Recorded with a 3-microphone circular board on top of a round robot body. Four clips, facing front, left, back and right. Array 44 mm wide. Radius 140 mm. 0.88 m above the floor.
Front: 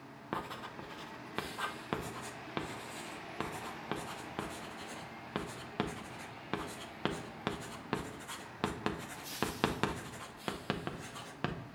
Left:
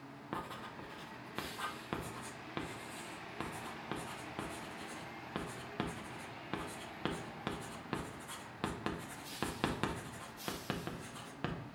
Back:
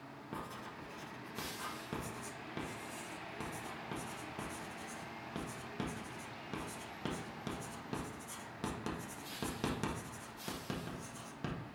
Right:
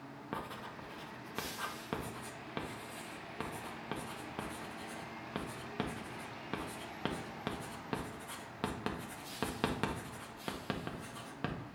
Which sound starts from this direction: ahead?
Writing, at 0.3 s.